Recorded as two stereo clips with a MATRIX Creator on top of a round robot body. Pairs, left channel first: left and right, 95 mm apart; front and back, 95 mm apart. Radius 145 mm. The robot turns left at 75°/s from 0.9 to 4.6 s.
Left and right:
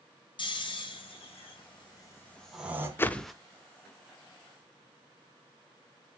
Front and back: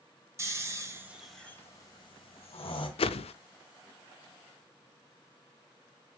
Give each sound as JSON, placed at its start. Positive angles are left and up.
{"t": 0.4, "sound": "snoring", "azimuth_deg": 120, "distance_m": 2.5}
{"t": 3.0, "sound": "a whoosh", "azimuth_deg": 20, "distance_m": 0.6}